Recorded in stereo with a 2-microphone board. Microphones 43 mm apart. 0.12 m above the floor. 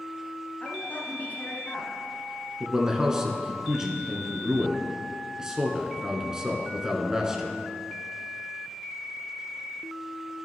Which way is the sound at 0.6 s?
40° left (ahead or behind).